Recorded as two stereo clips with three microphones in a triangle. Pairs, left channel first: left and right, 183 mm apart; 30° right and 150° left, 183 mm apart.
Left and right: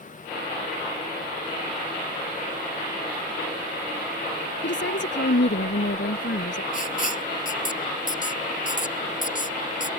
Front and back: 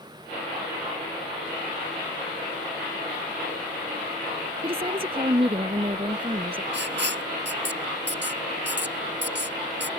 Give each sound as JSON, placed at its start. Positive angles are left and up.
{"t": 4.6, "sound": "a woman speaking", "azimuth_deg": 90}
{"t": 6.7, "sound": "writing", "azimuth_deg": 135}